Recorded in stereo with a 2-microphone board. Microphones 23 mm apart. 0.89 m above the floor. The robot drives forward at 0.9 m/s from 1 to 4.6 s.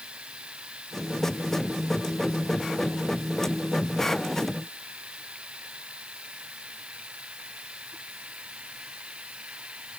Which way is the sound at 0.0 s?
50° right (ahead or behind).